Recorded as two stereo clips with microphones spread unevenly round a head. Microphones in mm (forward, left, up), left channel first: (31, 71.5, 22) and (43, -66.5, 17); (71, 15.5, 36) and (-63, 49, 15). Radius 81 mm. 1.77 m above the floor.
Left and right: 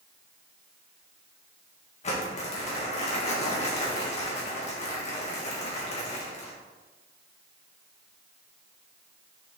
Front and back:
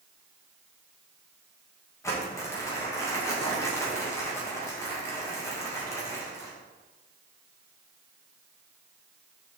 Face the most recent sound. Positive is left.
turn(degrees=55)